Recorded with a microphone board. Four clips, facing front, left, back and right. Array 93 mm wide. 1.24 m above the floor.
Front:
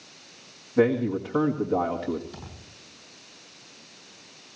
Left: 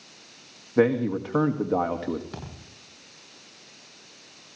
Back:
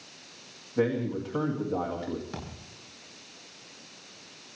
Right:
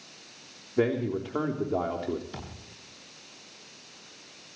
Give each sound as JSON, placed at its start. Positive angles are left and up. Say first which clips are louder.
{"t": 0.8, "sound": "a man speaking", "louder": "left 5 dB, front 5 dB", "azimuth_deg": 75, "distance_m": 2.0}
{"t": 2.3, "sound": "a thud", "louder": "left 2 dB, back 3 dB", "azimuth_deg": 130, "distance_m": 8.0}